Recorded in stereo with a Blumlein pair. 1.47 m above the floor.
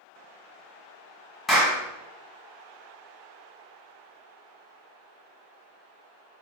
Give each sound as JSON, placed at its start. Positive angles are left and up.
{"t": 1.5, "sound": "a clap", "azimuth_deg": 10, "distance_m": 1.5}